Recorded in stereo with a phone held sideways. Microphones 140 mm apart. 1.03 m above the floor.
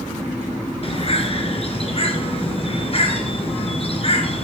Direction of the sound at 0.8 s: 45° left (ahead or behind).